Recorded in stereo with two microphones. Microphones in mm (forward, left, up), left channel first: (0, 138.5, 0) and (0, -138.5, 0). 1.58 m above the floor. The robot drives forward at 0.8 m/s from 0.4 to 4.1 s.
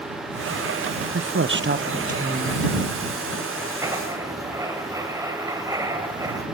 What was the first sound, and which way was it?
A woman speaking, 55° right (ahead or behind).